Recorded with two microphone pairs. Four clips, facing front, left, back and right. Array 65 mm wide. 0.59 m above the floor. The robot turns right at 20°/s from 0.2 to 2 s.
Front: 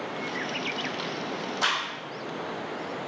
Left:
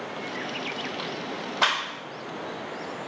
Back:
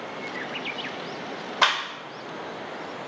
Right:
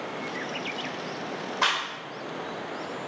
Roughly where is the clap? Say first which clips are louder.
Left 2 dB, back 6 dB; behind.